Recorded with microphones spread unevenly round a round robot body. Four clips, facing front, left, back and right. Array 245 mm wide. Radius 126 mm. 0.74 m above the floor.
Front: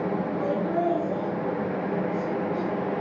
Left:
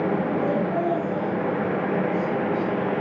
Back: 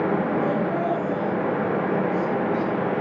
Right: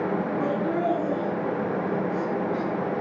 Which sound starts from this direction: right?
Laughter, at 0.4 s.